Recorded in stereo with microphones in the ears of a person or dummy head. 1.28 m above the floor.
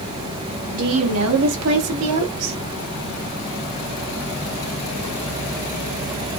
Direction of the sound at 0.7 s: 65° right (ahead or behind).